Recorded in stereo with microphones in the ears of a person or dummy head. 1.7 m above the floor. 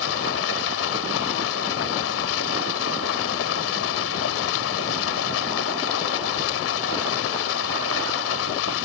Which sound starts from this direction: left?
Running water, at 0.0 s.